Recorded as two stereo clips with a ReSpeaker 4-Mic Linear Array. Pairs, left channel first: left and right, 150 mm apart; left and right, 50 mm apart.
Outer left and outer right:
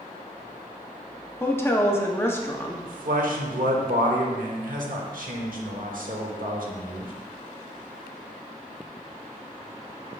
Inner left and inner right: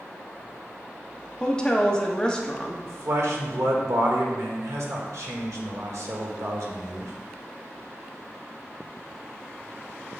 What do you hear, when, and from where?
1.4 s a woman speaking: 15° left (ahead or behind), 0.6 m
2.9 s a man speaking: 65° right (ahead or behind), 0.9 m